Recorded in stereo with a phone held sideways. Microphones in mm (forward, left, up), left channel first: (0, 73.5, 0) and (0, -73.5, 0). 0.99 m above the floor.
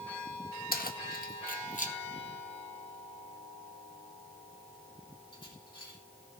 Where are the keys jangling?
80° left, 1.0 m; by 6.0 s 30° left (ahead or behind), 3.5 m.